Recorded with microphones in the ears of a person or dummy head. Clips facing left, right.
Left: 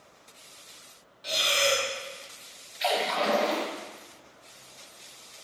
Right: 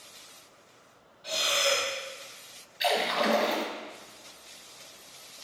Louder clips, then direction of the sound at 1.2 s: Left 2 dB; 25° left (ahead or behind).